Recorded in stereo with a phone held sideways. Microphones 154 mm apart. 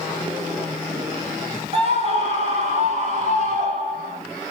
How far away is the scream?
About 2.5 m.